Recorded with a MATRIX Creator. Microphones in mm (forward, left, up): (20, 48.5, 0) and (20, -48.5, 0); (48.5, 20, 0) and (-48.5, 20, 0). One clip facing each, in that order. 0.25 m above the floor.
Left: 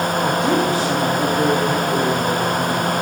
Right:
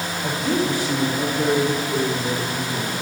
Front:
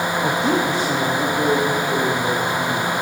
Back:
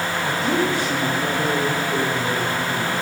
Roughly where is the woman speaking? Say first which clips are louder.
Left 2 dB, front 1 dB; ahead left.